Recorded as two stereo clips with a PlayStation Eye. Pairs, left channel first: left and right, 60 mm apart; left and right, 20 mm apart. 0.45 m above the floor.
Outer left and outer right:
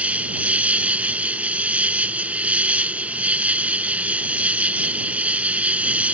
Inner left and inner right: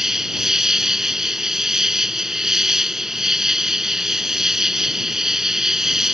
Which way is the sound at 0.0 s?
20° right (ahead or behind).